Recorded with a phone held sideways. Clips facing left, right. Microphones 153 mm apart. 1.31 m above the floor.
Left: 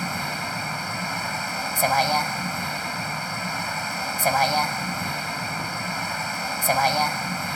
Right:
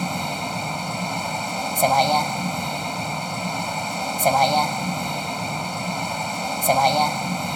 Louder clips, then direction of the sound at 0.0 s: Right 4 dB; 20° right (ahead or behind).